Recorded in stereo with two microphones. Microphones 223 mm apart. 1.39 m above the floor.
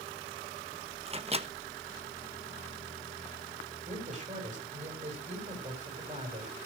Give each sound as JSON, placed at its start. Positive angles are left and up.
{"t": 1.1, "sound": "a microwave", "side_deg": -25, "distance_m": 1.0}
{"t": 3.9, "sound": "a man speaking", "side_deg": -35, "distance_m": 6.0}